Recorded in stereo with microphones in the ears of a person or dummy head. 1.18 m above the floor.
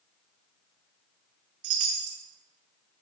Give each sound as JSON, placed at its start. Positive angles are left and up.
{"t": 1.6, "sound": "a chime", "side_deg": -45, "distance_m": 0.5}